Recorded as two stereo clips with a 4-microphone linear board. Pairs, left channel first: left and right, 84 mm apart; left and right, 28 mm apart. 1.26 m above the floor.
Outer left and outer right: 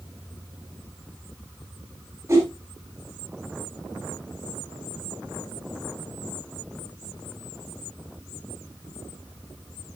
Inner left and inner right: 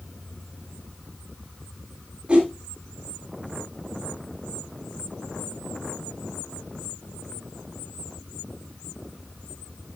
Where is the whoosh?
30° right (ahead or behind), 3.5 m.